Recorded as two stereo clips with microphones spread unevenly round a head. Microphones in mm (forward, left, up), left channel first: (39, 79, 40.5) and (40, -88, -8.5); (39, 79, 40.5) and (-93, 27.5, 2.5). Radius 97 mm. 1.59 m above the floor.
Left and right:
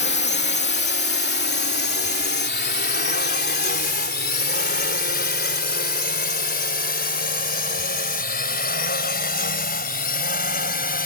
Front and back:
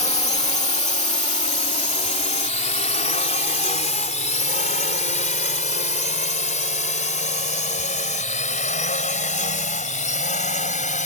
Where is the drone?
65° left; by 11.1 s 55° left.